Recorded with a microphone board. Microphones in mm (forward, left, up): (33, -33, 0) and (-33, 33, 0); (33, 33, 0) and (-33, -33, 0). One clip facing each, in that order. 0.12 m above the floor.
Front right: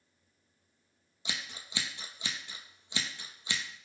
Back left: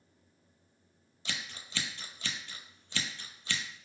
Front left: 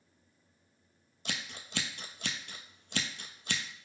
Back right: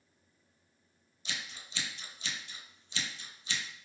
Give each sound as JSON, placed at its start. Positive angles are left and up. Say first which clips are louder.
{"t": 1.2, "sound": "scissors", "louder": "even, front left 2 dB", "azimuth_deg": 30, "distance_m": 0.6}